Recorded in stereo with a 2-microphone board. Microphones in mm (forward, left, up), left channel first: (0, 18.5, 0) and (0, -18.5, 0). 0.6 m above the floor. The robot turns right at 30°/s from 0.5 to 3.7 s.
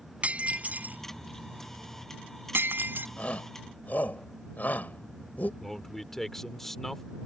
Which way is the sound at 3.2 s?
40° left (ahead or behind).